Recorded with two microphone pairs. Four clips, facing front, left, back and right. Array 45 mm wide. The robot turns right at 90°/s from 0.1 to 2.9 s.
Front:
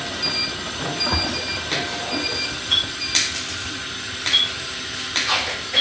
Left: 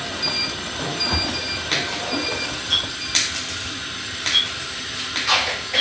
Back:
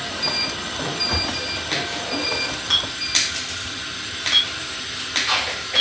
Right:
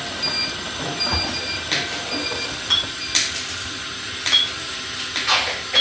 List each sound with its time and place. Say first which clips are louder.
1.1 s a splash: even, front 1 dB; 5° right, 6 m; by 2.5 s 125° left, 6 m
2.7 s a clink: right 2 dB, front 1 dB; 135° right, 5 m; by 5.8 s 120° right, 5 m